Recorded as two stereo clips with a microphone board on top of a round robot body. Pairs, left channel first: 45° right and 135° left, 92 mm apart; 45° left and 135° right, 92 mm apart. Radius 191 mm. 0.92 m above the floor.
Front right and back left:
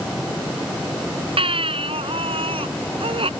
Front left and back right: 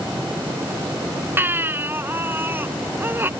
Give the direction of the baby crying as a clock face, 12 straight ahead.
7 o'clock.